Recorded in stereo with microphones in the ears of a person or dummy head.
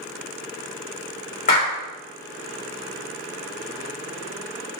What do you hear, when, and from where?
1.5 s a clap: 35° left (ahead or behind), 2.5 m